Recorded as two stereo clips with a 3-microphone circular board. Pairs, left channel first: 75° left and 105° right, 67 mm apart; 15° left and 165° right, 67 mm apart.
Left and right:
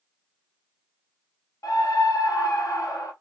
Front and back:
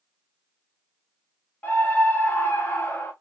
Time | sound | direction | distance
1.6 | a scream | 75° left | 1.0 m